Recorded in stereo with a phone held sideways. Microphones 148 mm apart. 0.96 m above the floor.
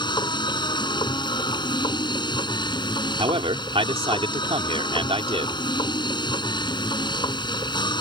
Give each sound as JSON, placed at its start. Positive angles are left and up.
{"t": 0.0, "sound": "a machine running", "side_deg": 35}
{"t": 3.2, "sound": "a man speaking", "side_deg": -40}